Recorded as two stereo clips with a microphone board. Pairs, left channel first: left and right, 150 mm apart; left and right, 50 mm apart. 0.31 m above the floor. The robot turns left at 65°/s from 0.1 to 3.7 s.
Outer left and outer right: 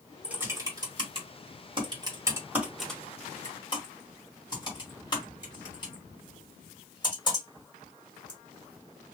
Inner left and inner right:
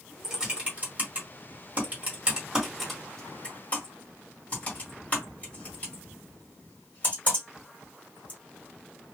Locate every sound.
0.2 s typing on a keyboard: 5° right (ahead or behind), 1.6 m; by 8.4 s 30° left (ahead or behind), 1.6 m